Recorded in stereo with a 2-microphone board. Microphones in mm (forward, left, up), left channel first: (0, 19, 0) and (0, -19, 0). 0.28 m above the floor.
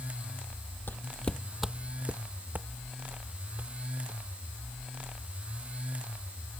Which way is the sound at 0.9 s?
70° left (ahead or behind).